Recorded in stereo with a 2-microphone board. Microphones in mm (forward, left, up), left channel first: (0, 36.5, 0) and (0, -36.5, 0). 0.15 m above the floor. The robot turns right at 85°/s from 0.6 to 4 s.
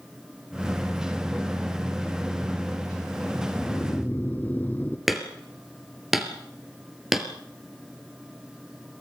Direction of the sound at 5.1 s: 5° right (ahead or behind).